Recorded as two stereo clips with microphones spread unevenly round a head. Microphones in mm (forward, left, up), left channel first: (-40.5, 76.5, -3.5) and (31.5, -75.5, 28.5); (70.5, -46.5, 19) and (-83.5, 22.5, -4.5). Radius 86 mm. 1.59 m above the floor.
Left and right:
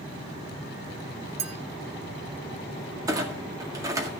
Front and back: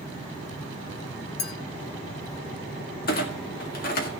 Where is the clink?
20° right, 1.1 m.